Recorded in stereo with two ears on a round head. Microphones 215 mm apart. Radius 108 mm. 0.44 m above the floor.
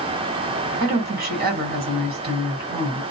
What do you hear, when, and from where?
0.8 s a woman speaking: 40° right (ahead or behind), 2 m